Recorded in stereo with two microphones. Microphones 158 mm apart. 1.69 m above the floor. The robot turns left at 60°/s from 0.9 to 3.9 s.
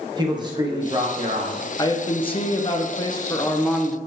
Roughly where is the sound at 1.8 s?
Behind left.